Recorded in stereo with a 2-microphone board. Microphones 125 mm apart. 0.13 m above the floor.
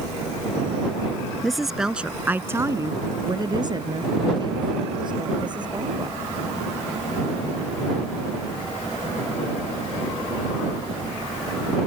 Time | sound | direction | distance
1.4 | a woman speaking | centre (ahead or behind) | ?